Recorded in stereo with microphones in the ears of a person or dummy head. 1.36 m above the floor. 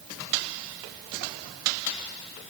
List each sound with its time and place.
Only background noise.